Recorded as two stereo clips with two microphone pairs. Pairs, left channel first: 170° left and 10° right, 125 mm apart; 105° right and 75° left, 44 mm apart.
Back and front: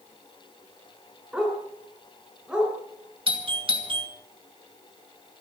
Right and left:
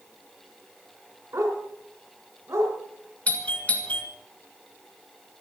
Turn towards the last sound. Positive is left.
turn(degrees=-50)